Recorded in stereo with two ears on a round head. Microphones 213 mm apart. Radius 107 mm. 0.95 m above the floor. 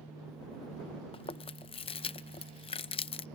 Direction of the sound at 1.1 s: 25° left (ahead or behind).